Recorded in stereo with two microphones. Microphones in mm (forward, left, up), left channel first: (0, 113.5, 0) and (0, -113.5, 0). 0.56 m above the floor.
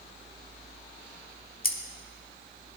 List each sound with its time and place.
1.6 s scissors: 40° left (ahead or behind), 1.5 m